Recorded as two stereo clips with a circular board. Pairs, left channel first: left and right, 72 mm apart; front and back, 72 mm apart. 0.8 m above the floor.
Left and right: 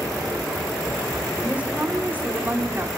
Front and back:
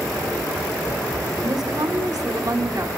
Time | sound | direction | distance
1.4 | a woman speaking | 165° right | 3 m